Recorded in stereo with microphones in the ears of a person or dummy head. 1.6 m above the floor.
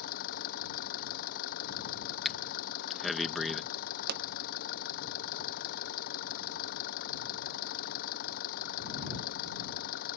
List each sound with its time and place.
0.0 s an engine running: 55° left (ahead or behind)
2.2 s breathing: centre (ahead or behind)
4.1 s a pop: 55° right (ahead or behind)